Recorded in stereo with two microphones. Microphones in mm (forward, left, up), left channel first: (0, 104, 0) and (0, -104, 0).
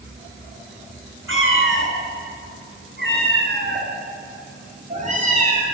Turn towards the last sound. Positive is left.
turn(degrees=-35)  # may be behind; listen again after turning